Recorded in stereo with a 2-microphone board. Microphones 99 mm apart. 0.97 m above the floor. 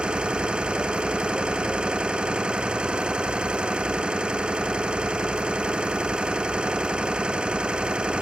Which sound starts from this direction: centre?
An engine running, at 0.0 s.